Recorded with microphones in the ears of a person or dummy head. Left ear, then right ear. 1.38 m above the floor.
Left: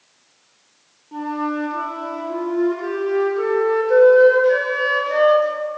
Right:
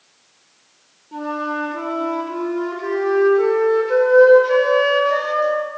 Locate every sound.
1.1 s a flute: 10° left (ahead or behind), 0.6 m